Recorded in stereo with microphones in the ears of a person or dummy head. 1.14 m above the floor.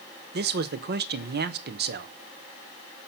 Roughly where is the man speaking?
Right.